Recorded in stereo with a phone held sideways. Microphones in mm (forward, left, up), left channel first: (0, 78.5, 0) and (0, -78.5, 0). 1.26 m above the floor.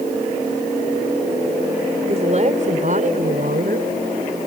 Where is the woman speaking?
45° right (ahead or behind); by 3.9 s 65° right (ahead or behind).